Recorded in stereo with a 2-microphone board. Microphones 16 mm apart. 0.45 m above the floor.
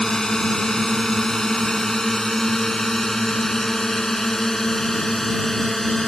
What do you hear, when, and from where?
0.0 s a drone: 45° left (ahead or behind); by 6.1 s 25° left (ahead or behind)